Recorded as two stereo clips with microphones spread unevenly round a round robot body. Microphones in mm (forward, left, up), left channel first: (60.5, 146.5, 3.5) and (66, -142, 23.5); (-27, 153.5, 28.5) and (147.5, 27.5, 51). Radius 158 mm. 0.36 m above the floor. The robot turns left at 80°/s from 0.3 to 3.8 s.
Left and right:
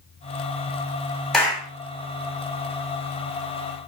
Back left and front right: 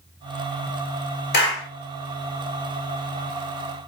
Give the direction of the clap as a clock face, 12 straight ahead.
6 o'clock.